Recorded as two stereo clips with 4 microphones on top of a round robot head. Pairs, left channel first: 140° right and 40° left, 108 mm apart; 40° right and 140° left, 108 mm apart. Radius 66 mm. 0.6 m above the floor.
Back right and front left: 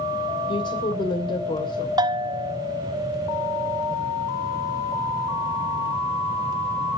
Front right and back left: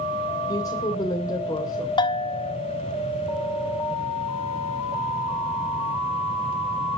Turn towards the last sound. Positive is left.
turn(degrees=-5)